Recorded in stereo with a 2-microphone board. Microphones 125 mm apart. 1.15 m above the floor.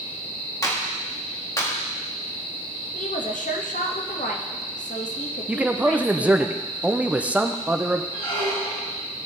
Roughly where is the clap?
Left.